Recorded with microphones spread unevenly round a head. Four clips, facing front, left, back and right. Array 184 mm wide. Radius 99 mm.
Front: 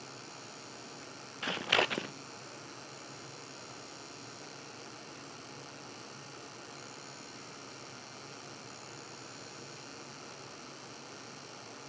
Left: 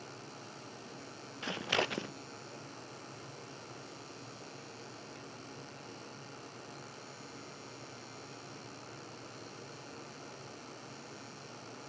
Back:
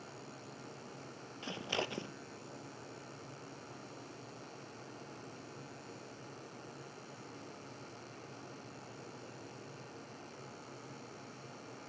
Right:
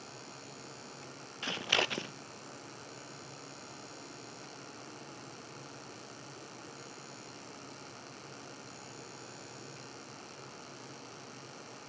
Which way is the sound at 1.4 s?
5° right.